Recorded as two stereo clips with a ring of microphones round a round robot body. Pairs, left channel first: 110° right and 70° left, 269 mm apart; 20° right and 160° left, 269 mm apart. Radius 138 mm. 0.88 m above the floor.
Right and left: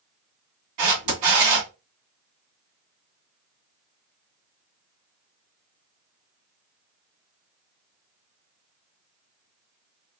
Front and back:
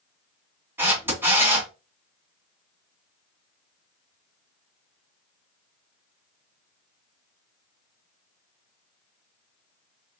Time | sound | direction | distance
0.8 | a camera shutter | 75° left | 2 m